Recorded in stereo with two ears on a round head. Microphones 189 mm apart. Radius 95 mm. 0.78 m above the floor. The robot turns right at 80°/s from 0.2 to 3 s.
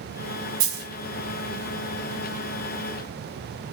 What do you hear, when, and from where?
0.6 s a dropped coin: 75° right (ahead or behind), 1.5 m; by 0.9 s 80° right, 1.5 m